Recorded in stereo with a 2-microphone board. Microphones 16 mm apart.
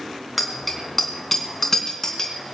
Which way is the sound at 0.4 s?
Centre (ahead or behind).